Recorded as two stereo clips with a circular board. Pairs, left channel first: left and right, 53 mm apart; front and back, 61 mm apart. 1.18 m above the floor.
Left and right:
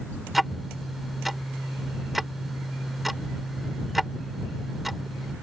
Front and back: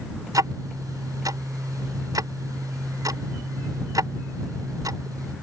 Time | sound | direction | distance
0.3 | ticking | straight behind | ?